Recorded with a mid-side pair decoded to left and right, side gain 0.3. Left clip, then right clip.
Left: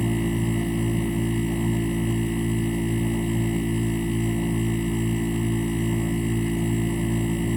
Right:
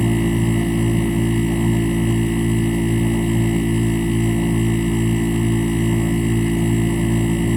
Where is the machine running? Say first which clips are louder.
Right 6 dB; 55° right.